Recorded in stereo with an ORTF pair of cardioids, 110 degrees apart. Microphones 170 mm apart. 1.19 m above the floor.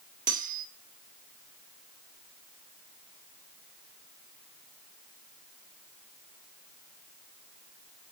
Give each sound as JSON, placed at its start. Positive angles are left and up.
{"t": 0.3, "sound": "cutlery clinking", "azimuth_deg": -50, "distance_m": 1.8}